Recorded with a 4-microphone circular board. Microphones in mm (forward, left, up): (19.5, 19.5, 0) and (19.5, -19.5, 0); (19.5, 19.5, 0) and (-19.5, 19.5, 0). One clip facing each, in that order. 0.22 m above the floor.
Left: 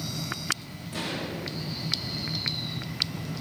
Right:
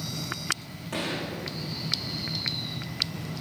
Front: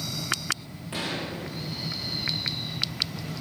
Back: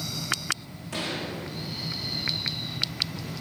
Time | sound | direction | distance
0.9 | a gunshot | 70° right | 8 m